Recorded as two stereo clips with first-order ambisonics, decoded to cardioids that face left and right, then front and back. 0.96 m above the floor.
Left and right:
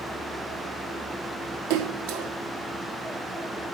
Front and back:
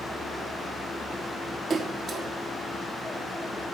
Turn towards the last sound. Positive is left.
turn(degrees=-105)